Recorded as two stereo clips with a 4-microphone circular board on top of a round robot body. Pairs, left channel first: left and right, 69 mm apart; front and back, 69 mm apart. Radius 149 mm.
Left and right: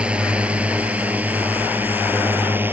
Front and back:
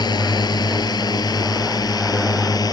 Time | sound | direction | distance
0.0 | a drone | 15° right | ?